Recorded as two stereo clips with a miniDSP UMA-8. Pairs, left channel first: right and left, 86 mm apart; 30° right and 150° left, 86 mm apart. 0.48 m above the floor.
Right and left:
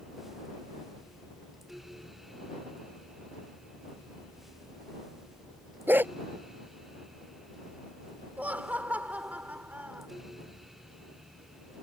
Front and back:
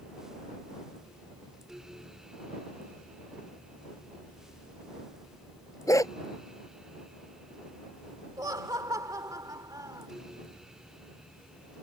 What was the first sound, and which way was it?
A dog barking, 20° left.